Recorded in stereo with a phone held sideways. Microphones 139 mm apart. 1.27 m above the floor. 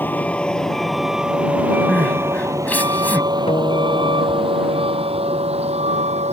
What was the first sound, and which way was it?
A vehicle, 15° left (ahead or behind).